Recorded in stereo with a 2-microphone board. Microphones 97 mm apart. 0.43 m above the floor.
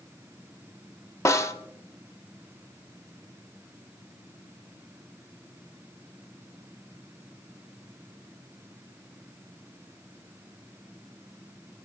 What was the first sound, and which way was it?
A snare drum, 30° left (ahead or behind).